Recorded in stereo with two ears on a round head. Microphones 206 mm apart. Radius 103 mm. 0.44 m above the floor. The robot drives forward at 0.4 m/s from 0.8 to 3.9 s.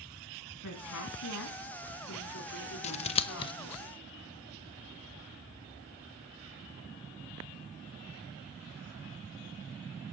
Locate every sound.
0.6 s a woman speaking: 80° left, 4 m; by 3.8 s 70° left (ahead or behind), 4.5 m
2.8 s scissors: 30° left (ahead or behind), 0.7 m; by 3.5 s 25° left (ahead or behind), 0.9 m